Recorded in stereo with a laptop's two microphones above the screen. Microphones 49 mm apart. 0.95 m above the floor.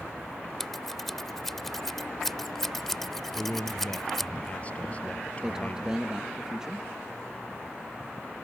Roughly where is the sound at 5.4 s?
Centre.